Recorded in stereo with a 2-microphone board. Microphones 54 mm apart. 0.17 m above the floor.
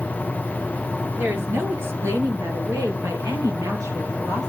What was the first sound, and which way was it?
A woman speaking, 45° right (ahead or behind).